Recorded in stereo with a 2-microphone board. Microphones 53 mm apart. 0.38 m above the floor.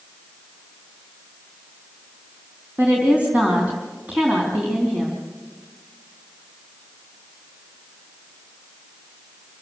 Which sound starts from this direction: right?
A woman speaking, at 2.8 s.